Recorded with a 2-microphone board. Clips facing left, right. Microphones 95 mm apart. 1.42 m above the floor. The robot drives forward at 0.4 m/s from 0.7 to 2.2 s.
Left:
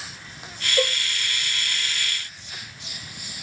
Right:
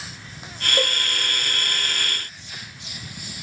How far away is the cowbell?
About 1.1 m.